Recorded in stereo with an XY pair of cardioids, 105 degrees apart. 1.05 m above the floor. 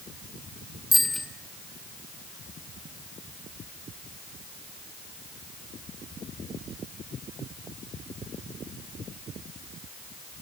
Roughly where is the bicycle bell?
Ahead.